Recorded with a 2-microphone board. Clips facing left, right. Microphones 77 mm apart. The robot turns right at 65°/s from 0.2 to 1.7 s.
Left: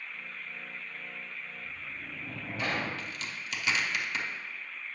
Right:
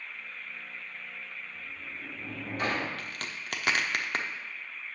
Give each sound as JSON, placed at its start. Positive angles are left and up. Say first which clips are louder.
{"t": 1.6, "sound": "a sliding door", "louder": "even", "side_deg": -45, "distance_m": 1.4}
{"t": 3.0, "sound": "a crack", "louder": "even", "side_deg": -55, "distance_m": 0.7}